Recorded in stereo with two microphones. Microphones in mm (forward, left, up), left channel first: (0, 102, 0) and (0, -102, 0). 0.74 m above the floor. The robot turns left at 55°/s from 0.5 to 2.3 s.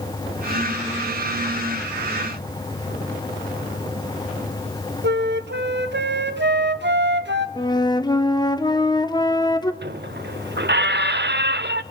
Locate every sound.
5.0 s a flute: 60° right (ahead or behind), 1.2 m
7.6 s a flute: 20° left (ahead or behind), 1.0 m
9.8 s a squeak: 60° right (ahead or behind), 0.8 m